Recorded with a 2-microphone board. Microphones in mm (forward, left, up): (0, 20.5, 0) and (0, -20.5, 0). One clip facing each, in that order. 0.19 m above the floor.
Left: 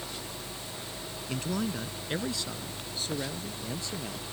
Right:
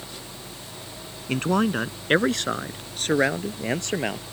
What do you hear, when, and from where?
1.3 s a man speaking: 50° right (ahead or behind); by 4.2 s 60° right (ahead or behind)